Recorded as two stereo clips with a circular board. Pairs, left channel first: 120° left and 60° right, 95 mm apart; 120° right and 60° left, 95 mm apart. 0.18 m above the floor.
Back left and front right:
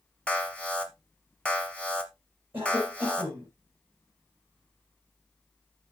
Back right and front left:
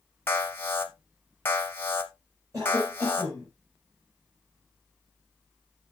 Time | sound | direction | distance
0.3 | an alarm | 170° right | 1.3 m
2.5 | a cough | 5° left | 6 m